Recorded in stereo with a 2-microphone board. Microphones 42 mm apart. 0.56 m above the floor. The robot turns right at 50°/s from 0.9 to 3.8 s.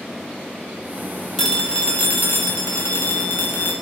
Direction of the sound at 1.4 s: 10° left.